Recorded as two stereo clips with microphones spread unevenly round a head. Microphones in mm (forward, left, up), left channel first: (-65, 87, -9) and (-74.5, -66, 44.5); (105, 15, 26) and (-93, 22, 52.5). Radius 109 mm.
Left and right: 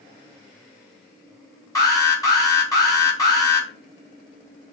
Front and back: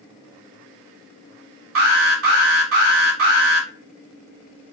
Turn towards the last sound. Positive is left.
turn(degrees=160)